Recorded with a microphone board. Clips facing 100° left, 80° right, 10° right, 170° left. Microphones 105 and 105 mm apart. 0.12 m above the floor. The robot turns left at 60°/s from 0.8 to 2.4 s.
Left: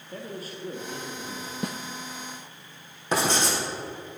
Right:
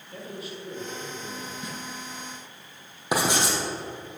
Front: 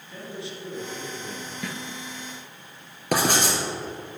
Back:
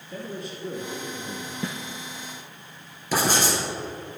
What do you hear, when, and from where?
0.1 s a man speaking: 140° left, 2.5 m; by 1.5 s 95° left, 2.5 m
1.6 s a snare drum: 110° left, 1.0 m; by 1.8 s 100° left, 1.0 m
3.1 s writing: 5° right, 3.5 m